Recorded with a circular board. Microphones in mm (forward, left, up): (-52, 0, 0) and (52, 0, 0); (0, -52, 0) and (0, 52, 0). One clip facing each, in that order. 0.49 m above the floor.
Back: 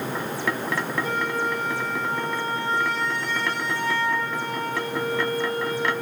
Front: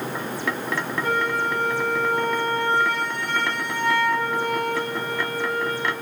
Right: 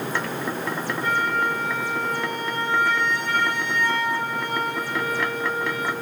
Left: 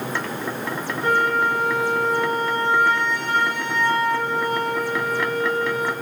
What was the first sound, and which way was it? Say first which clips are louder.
A flute: front 2 dB, left 4 dB; 35° left.